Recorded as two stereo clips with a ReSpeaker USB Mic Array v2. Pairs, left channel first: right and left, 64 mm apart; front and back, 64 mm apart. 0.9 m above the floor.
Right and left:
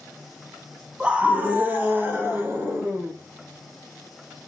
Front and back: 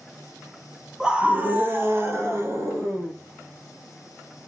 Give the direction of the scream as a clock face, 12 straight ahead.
8 o'clock.